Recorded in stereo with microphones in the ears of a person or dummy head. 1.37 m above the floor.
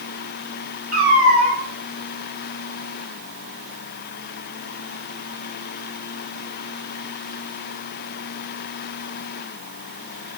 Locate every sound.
0.9 s a cat meowing: 10° right (ahead or behind), 1.5 m